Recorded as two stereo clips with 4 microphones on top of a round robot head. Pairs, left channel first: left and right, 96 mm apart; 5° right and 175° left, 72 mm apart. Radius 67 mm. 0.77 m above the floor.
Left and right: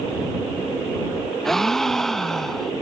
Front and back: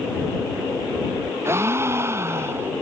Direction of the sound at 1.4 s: 175° left.